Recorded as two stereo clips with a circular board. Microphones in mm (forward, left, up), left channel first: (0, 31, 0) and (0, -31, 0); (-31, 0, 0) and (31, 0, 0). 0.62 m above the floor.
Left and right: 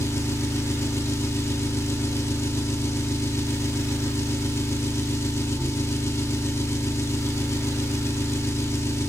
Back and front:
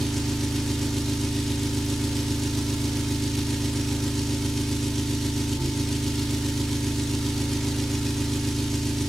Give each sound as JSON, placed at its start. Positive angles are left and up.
{"t": 0.0, "sound": "an engine running", "azimuth_deg": 95, "distance_m": 0.8}